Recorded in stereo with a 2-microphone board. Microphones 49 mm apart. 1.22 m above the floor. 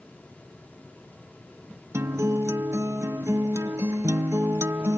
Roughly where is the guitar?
Right.